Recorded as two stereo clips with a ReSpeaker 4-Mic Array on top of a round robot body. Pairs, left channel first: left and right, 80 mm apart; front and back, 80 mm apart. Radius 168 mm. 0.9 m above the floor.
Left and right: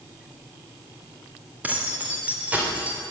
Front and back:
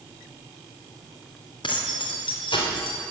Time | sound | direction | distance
1.6 | keys jangling | 20° right | 2.5 m